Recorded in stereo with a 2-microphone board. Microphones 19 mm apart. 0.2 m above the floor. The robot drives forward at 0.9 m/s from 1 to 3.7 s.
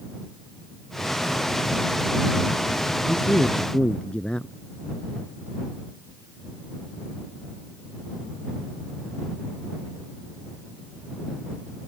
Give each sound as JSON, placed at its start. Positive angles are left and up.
{"t": 3.1, "sound": "a man speaking", "side_deg": 60}